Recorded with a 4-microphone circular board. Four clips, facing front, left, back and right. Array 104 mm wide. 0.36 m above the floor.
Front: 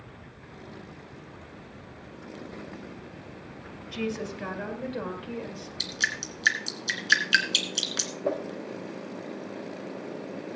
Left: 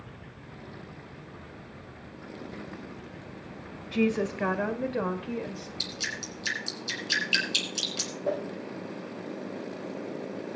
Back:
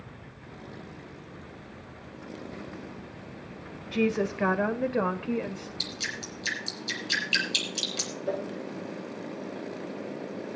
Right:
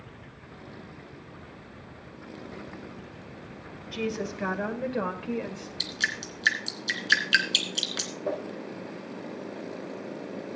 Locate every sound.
3.9 s a woman speaking: 140° left, 1.9 m; by 5.7 s 135° right, 1.7 m
5.8 s dripping: 35° right, 2.5 m
8.2 s a whoosh: straight ahead, 8 m